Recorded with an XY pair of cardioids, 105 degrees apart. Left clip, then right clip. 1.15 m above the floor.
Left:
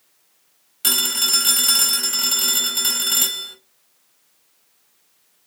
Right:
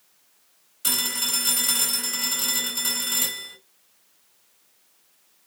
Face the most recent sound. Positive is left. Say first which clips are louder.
# left 6 dB
turn(degrees=60)